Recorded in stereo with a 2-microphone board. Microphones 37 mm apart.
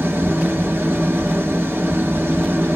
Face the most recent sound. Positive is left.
turn(degrees=-75)  # may be behind; listen again after turning